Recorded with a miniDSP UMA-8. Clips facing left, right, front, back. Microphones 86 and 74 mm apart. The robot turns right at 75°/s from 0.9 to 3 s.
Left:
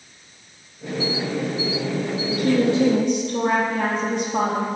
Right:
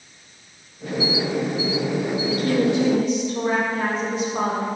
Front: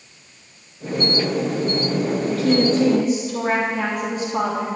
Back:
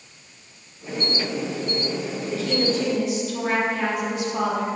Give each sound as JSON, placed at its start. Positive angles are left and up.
{"t": 2.3, "sound": "a woman speaking", "azimuth_deg": 25, "distance_m": 3.5}